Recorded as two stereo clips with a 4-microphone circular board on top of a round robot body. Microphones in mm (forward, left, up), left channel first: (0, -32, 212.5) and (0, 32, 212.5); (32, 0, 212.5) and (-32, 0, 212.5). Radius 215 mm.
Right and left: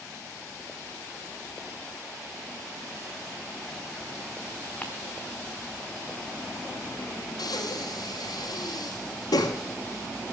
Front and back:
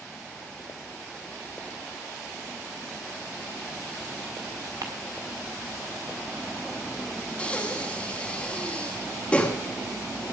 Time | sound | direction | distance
4.8 | ticking | 155° right | 0.6 m
7.4 | breathing | 70° right | 2.5 m